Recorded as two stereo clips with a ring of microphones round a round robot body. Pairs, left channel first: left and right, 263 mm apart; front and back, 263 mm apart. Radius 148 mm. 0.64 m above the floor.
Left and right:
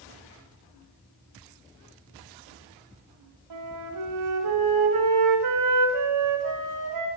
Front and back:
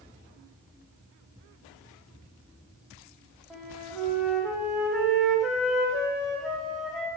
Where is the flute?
90° right, 2 m.